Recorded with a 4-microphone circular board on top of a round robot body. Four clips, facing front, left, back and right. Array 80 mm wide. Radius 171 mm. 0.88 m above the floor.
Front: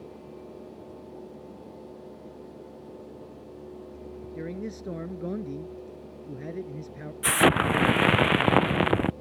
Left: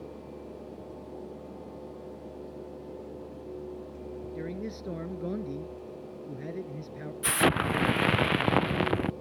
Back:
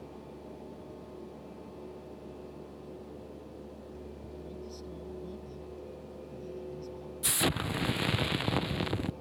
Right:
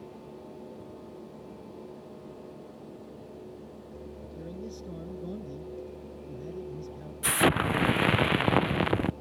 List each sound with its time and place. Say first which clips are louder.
4.3 s a man speaking: left 3 dB, front 10 dB; 30° left
7.2 s an explosion: right 1 dB, front 11 dB; straight ahead